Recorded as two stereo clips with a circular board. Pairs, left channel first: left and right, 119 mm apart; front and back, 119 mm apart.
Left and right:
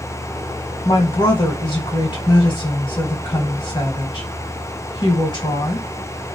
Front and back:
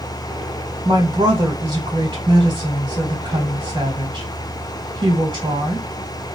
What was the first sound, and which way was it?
A woman speaking, 130° left.